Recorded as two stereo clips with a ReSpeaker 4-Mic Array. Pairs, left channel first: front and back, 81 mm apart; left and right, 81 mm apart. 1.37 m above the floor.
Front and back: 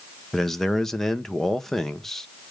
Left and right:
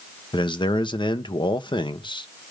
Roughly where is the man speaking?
Left.